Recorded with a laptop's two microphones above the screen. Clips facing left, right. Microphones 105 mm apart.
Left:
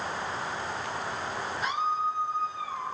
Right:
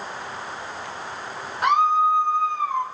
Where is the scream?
65° right (ahead or behind), 1.0 m.